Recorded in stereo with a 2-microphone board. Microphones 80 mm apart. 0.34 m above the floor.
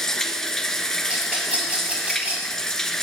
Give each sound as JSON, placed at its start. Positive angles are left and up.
{"t": 0.0, "sound": "running water", "side_deg": 5, "distance_m": 1.0}
{"t": 1.1, "sound": "a rattle", "side_deg": -15, "distance_m": 5.5}